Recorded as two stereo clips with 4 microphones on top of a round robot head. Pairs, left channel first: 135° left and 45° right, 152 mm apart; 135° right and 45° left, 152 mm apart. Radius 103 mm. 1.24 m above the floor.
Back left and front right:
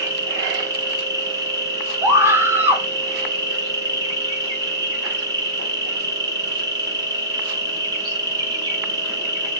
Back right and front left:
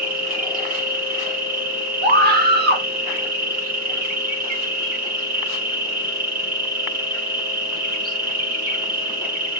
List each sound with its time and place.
0.0 s an insect: 20° left, 1.5 m
2.0 s a scream: 30° left, 1.3 m